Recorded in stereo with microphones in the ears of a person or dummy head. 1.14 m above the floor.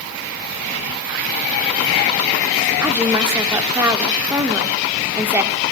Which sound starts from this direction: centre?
A woman speaking, at 2.8 s.